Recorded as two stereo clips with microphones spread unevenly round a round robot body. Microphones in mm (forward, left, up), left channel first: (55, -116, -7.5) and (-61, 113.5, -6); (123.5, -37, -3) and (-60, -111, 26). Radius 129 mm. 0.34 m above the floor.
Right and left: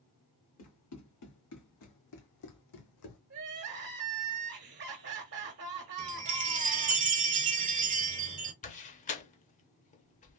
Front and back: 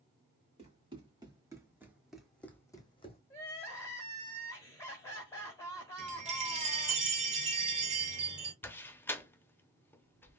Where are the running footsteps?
100° right, 1.8 m; by 3.2 s 40° right, 1.1 m.